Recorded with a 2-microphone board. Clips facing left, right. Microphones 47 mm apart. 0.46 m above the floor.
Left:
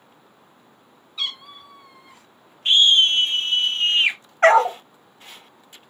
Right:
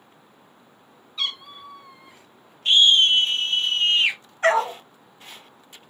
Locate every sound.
1.2 s a cat meowing: 5° left (ahead or behind), 0.8 m
2.6 s a scream: 25° left (ahead or behind), 1.2 m
4.4 s a dog barking: 70° left (ahead or behind), 1.0 m